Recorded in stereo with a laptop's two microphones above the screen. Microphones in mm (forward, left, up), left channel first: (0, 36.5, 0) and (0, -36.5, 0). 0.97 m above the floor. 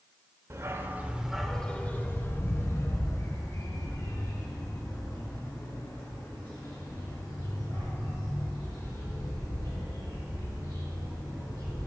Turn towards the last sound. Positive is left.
turn(degrees=65)  # may be behind; listen again after turning